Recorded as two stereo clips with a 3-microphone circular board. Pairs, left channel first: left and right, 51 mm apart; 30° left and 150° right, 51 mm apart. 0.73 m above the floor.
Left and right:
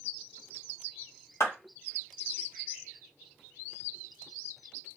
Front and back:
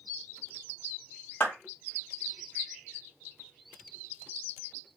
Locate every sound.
1.4 s a clap: 75° left, 1.6 m